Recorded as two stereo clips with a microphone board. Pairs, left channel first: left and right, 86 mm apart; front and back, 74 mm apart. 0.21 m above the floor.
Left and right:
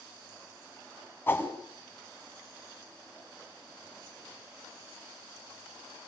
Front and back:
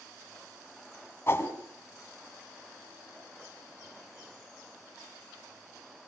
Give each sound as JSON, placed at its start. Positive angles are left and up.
{"t": 1.3, "sound": "a whoosh", "azimuth_deg": 35, "distance_m": 1.9}